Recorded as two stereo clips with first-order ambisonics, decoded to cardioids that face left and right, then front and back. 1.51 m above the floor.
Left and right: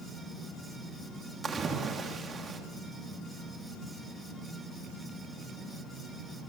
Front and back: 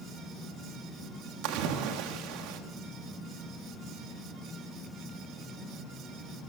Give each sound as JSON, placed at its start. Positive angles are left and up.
{"t": 1.4, "sound": "a splash", "azimuth_deg": -160, "distance_m": 3.0}